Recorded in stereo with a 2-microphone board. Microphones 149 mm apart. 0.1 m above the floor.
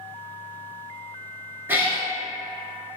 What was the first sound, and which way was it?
A cat meowing, 15° right (ahead or behind).